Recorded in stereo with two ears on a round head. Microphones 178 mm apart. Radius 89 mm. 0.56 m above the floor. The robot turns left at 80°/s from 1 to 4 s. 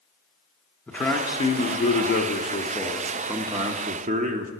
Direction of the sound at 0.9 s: 170° left.